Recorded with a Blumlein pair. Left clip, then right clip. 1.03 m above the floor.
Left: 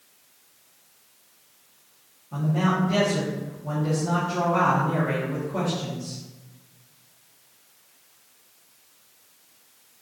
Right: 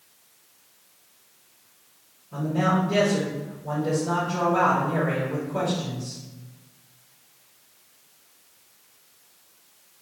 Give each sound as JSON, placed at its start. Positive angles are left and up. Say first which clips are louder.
{"t": 2.3, "sound": "a man speaking", "louder": "right 2 dB", "azimuth_deg": 25, "distance_m": 1.8}